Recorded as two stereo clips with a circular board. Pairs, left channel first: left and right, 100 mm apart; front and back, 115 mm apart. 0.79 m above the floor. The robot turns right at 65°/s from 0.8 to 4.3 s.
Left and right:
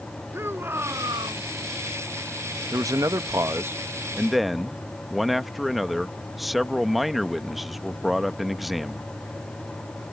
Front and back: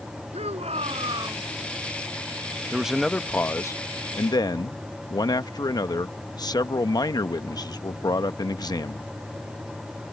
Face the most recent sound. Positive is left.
turn(degrees=-5)